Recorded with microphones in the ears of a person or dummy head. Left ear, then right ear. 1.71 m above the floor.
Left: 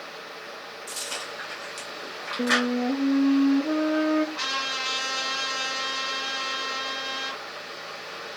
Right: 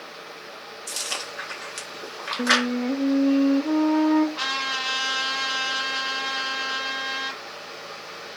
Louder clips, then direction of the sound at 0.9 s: Right 4 dB; 35° right (ahead or behind).